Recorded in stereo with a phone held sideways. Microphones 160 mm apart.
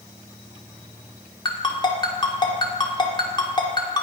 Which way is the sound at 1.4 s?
25° left (ahead or behind).